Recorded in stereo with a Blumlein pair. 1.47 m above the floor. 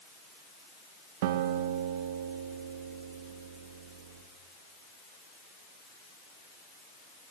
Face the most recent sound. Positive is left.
turn(degrees=-50)